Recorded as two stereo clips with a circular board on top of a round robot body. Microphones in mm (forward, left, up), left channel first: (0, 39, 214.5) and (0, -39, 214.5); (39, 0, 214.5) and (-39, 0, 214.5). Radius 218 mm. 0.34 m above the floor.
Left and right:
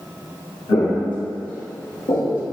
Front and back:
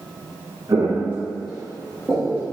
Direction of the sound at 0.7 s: 120° left.